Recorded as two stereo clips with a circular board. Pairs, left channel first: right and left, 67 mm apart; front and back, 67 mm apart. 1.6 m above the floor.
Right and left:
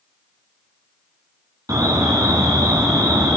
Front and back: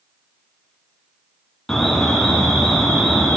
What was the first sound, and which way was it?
An alarm, 85° left.